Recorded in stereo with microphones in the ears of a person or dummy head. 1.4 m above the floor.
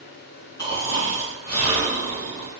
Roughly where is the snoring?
Centre.